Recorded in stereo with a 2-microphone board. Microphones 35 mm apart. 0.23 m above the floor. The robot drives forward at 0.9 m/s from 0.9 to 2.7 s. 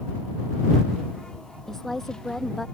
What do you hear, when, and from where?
1.7 s a woman speaking: 15° left (ahead or behind); by 2.6 s 10° left (ahead or behind)